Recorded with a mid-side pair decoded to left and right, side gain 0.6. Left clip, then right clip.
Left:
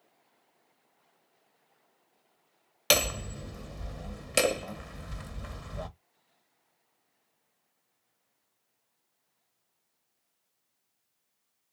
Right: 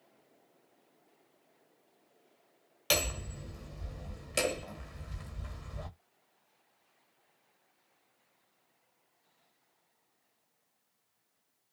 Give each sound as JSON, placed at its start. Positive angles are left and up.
{"t": 2.9, "sound": "hammering", "azimuth_deg": 40, "distance_m": 1.3}